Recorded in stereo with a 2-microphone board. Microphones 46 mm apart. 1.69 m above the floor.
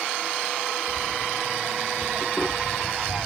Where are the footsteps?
30° left (ahead or behind), 2 m; by 3.3 s 45° right (ahead or behind), 2.5 m.